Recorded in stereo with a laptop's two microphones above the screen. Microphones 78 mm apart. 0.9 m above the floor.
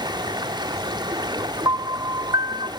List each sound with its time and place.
0.0 s running water: 70° right (ahead or behind), 1.1 m
1.6 s a piano: 60° right (ahead or behind), 1.2 m